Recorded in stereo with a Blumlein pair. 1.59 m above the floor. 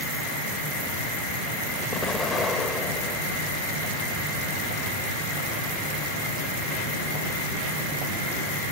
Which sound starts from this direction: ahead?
An explosion, at 1.9 s.